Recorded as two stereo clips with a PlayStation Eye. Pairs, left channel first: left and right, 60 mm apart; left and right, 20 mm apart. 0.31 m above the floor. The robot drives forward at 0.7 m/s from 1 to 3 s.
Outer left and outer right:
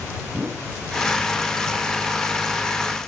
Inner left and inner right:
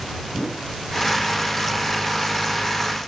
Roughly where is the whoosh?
Right.